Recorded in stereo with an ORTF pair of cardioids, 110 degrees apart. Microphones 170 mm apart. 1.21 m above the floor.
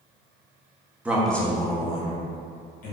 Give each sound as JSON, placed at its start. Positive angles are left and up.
{"t": 1.1, "sound": "a man speaking", "azimuth_deg": -10, "distance_m": 0.7}